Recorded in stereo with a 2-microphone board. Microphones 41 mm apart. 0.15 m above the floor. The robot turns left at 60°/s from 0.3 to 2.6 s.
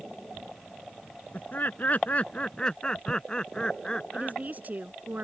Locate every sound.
1.3 s laughter: 105° left; by 4.4 s 30° left
4.1 s a woman speaking: 40° right (ahead or behind)